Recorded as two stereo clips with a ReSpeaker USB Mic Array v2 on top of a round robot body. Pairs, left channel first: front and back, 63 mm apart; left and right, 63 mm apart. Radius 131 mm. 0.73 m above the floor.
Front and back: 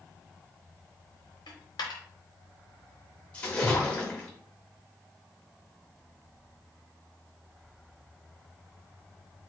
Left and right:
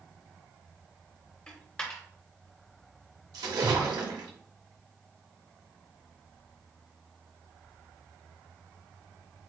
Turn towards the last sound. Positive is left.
turn(degrees=-70)